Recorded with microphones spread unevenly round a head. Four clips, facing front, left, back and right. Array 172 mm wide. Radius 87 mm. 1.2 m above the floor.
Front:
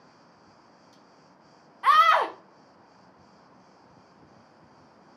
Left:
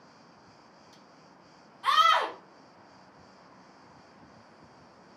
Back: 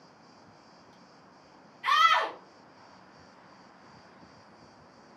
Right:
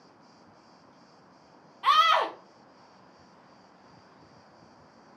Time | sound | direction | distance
1.8 | a scream | 20° right | 0.7 m